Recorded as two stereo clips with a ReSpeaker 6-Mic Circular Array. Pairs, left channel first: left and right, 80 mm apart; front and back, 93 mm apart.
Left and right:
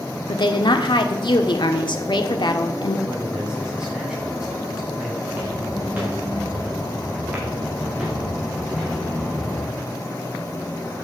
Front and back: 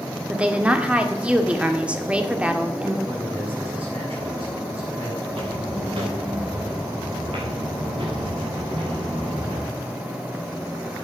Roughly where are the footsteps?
Behind.